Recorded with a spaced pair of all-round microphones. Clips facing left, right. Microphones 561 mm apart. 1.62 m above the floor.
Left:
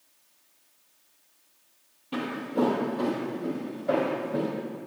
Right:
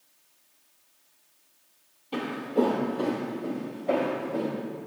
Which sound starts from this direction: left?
Footsteps, at 2.1 s.